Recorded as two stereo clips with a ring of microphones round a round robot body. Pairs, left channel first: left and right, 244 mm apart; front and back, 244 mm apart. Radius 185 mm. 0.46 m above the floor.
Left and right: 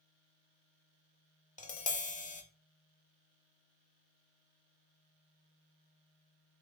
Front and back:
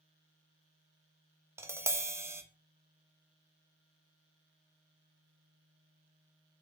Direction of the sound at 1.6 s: 110° left.